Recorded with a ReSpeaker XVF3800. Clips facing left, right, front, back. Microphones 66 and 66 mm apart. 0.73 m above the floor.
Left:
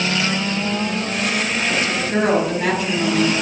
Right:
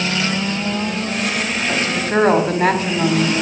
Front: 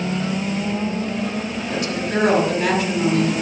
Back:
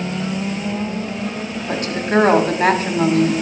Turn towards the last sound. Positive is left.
turn(degrees=-135)